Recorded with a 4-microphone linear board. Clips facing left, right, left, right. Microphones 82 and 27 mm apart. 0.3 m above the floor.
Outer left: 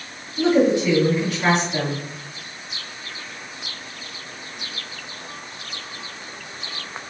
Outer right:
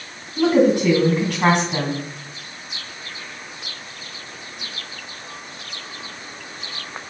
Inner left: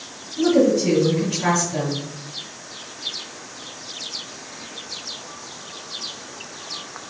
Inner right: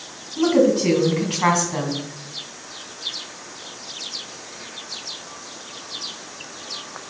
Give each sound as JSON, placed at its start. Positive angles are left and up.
{"t": 0.4, "sound": "a woman speaking", "side_deg": -55, "distance_m": 2.5}